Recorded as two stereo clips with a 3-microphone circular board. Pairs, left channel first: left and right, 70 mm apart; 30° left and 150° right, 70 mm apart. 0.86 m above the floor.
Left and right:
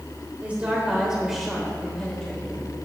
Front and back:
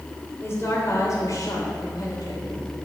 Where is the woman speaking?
20° right, 3 m; by 2.6 s 20° left, 3 m.